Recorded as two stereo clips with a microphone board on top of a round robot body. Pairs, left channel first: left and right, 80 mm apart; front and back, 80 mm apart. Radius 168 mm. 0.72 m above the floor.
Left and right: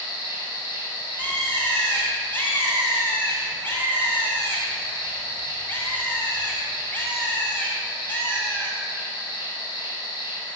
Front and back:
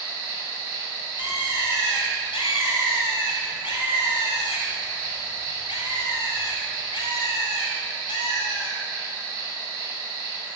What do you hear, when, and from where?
0.0 s an insect: 120° left, 1.2 m
1.2 s a bird: 25° left, 0.5 m